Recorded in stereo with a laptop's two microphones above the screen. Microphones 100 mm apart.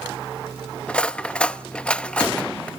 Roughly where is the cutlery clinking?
Centre.